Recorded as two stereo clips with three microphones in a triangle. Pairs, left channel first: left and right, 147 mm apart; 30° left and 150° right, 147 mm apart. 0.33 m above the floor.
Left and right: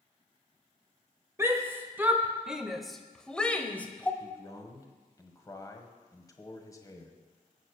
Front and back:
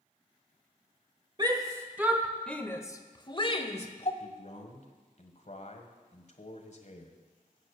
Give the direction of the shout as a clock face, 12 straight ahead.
5 o'clock.